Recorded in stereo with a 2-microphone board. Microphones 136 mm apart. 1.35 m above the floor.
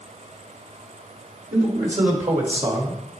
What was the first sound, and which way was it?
A man speaking, 70° right (ahead or behind).